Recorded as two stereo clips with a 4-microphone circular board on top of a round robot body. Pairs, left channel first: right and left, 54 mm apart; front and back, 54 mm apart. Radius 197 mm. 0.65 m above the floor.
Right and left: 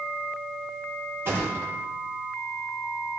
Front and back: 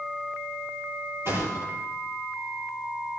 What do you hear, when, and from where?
1.2 s a thud: 135° left, 10 m